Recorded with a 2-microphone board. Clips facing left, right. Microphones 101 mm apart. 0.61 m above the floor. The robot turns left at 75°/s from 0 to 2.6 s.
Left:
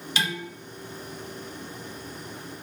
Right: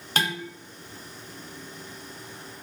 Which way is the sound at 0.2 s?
50° right (ahead or behind).